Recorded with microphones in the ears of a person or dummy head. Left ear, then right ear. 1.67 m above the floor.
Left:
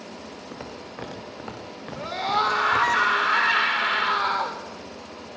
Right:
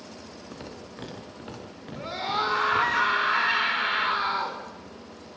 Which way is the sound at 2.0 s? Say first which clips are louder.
Left 4 dB; 20° left (ahead or behind).